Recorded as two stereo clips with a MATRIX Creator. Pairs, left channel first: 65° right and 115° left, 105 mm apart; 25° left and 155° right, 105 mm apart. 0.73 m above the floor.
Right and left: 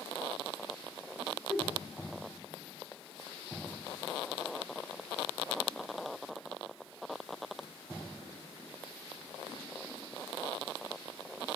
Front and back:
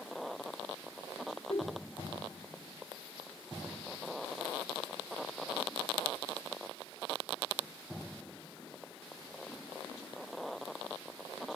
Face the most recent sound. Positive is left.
turn(degrees=30)